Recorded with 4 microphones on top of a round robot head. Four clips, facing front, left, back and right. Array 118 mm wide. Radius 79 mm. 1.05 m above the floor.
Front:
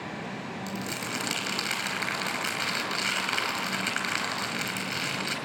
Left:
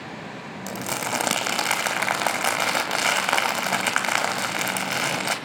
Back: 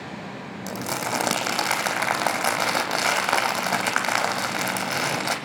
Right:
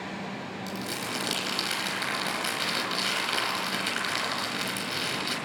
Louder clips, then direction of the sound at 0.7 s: Left 9 dB, back 10 dB; 135° left.